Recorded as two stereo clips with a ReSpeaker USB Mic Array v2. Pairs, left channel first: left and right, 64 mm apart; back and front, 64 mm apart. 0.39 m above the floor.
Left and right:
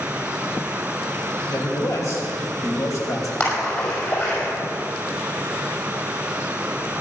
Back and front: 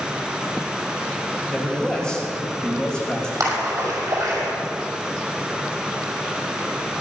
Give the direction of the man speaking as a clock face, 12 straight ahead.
8 o'clock.